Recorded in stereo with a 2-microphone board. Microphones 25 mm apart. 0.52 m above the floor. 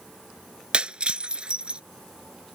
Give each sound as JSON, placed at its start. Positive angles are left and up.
{"t": 0.7, "sound": "breaking glass", "side_deg": -45}